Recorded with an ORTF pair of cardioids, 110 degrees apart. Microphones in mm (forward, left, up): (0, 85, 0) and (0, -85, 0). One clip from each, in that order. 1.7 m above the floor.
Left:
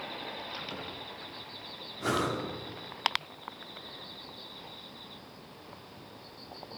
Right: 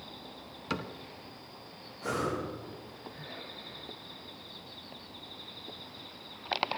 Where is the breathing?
45° left, 4 m.